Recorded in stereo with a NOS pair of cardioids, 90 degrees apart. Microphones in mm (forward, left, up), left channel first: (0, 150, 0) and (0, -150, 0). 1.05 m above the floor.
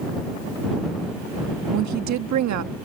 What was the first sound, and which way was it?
A woman speaking, 65° right.